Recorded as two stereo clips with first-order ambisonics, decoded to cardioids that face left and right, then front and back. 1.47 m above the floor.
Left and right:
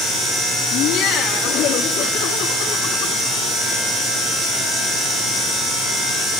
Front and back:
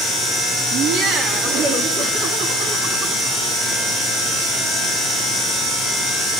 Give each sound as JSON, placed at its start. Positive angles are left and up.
{"t": 0.7, "sound": "laughter", "azimuth_deg": 135, "distance_m": 3.5}